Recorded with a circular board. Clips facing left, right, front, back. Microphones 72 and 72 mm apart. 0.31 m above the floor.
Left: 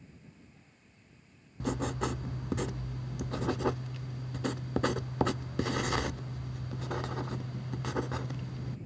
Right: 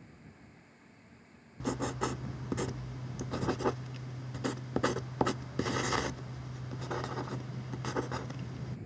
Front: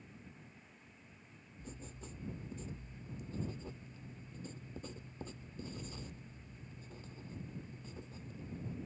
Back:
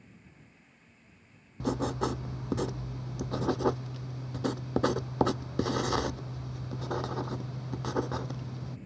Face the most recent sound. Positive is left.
turn(degrees=-175)